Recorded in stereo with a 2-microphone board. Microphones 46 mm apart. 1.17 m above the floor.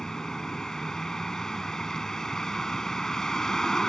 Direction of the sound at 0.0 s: 10° left (ahead or behind).